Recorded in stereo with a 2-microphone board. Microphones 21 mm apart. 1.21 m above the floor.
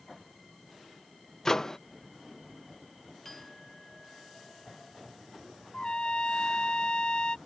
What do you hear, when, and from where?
1.4 s a microwave: 20° left (ahead or behind)
3.2 s a clink: 20° left (ahead or behind)
5.7 s a trumpet: 40° left (ahead or behind)